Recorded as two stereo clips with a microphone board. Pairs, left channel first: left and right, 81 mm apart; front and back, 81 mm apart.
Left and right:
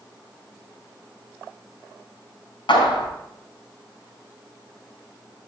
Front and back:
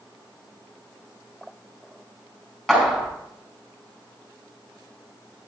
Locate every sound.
2.7 s a clap: 85° left, 4.5 m